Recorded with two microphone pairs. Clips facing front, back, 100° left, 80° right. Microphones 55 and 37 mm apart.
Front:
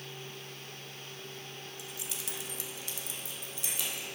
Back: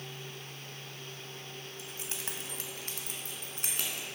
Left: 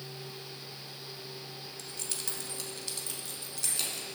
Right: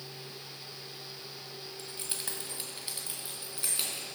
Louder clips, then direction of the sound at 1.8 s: Back 2 dB, right 1 dB; 140° right.